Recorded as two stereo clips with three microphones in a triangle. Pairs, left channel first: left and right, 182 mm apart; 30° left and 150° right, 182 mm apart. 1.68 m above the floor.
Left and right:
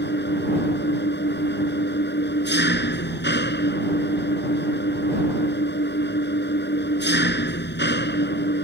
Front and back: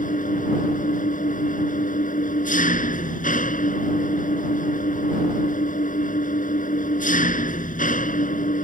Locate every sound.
0.0 s an engine running: 75° left